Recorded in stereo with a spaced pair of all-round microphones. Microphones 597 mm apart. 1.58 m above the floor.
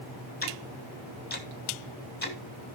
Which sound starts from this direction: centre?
Ticking, at 0.4 s.